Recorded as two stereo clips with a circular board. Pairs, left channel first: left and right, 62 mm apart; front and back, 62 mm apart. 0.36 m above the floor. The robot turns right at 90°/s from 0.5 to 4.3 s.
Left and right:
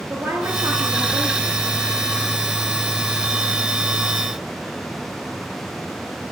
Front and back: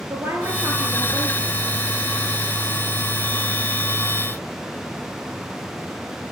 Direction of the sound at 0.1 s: 140° right.